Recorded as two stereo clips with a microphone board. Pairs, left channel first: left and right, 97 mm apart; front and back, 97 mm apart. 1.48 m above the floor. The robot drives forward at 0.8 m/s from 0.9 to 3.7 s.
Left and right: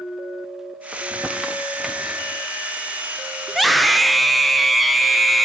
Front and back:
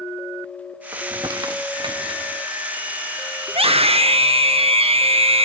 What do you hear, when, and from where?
0.9 s crumpling: 160° right, 0.9 m; by 2.4 s 175° right, 1.8 m
3.5 s a scream: straight behind, 0.9 m